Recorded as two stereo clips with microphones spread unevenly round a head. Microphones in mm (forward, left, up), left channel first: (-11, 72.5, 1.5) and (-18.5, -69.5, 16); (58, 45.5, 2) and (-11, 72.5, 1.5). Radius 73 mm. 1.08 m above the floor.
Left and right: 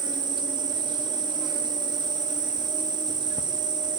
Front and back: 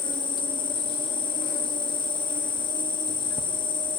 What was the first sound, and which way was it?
An insect, 35° right.